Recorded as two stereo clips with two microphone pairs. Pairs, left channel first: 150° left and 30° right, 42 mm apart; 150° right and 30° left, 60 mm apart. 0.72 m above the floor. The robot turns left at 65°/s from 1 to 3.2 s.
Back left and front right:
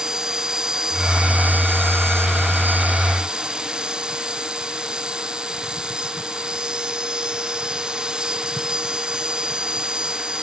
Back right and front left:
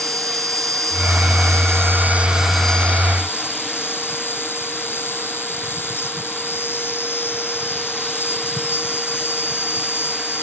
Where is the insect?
40° left; by 10.4 s 100° right.